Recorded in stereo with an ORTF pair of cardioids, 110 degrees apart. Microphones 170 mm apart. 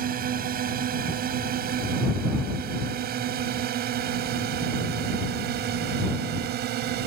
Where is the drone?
60° right; by 7.1 s 75° right.